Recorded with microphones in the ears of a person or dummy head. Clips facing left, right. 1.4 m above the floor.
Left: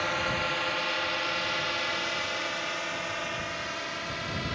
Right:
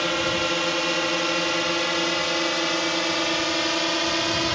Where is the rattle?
No rattle in this recording.